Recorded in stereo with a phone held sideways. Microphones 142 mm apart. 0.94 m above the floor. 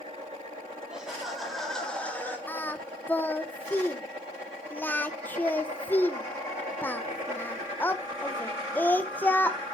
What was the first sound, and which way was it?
Laughter, 5° right (ahead or behind).